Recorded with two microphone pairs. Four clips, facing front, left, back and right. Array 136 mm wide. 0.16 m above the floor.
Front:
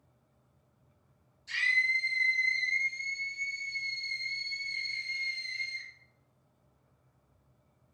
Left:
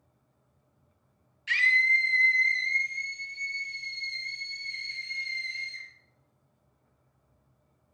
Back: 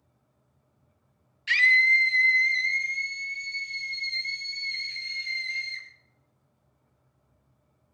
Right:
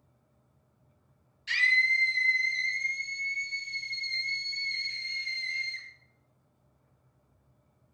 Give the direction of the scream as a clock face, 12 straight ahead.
6 o'clock.